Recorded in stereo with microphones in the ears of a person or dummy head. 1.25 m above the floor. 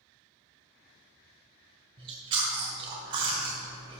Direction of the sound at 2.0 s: 30° right (ahead or behind).